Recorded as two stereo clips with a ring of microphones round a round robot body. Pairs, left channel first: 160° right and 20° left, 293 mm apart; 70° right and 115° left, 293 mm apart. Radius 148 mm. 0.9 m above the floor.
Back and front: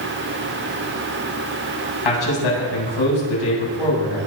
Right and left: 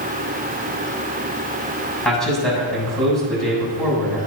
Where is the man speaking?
155° right, 7.5 m.